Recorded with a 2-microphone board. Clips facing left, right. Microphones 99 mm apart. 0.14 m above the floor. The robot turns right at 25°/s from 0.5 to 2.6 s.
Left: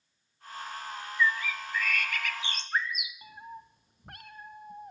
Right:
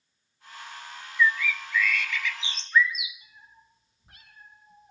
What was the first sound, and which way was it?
A bird, 45° left.